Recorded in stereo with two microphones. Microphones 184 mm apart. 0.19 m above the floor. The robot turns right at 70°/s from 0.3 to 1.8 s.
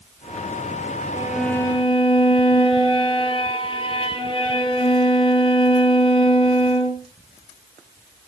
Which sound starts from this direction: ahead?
A violin, at 1.1 s.